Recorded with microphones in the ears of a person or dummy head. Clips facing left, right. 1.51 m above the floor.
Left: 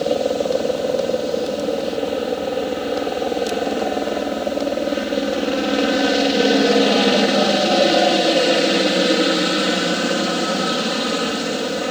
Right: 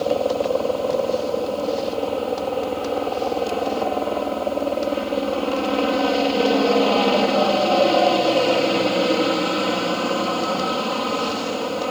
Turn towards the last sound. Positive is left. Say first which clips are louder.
# left 1 dB
turn(degrees=20)  # may be behind; listen again after turning